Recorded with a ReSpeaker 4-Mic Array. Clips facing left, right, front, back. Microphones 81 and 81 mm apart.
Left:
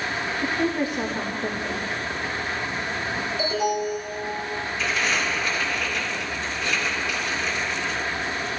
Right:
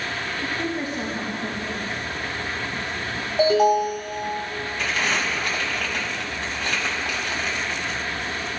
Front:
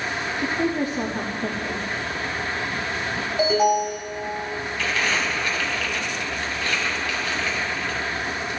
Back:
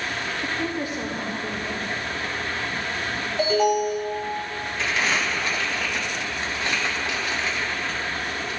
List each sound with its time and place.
0.4 s a woman speaking: 20° left, 2.5 m
3.4 s an alarm: 80° right, 4 m
4.8 s crumpling: 115° right, 3 m